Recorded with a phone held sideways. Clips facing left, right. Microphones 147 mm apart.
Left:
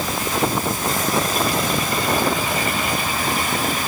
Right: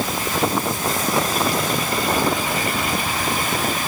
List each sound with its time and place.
Only background noise.